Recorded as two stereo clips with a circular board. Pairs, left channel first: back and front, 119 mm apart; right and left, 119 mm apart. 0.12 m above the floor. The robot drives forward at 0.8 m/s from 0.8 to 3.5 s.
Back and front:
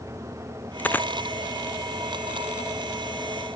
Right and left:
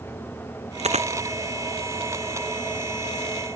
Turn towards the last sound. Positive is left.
turn(degrees=130)